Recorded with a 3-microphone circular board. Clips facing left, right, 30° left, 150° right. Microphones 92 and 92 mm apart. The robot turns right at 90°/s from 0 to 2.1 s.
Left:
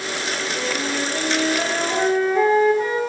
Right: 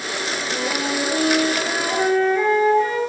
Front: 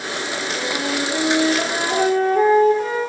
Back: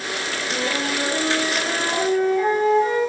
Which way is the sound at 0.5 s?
115° right.